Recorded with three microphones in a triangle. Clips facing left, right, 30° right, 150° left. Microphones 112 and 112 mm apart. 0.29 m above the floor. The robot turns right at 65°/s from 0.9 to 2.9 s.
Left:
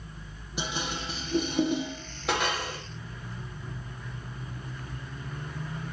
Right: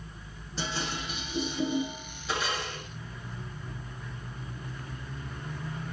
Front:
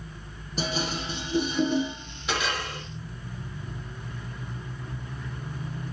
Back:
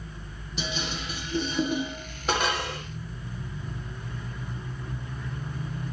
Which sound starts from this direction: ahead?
Dishes clattering, at 0.6 s.